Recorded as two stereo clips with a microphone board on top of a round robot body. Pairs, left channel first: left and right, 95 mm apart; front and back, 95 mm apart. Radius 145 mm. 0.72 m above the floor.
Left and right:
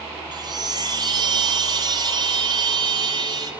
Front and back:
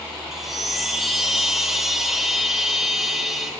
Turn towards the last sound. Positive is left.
turn(degrees=-90)